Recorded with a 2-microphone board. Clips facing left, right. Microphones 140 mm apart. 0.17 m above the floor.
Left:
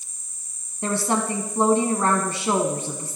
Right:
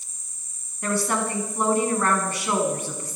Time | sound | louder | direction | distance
0.8 | a woman speaking | left 1 dB | 25° left (ahead or behind) | 1.1 m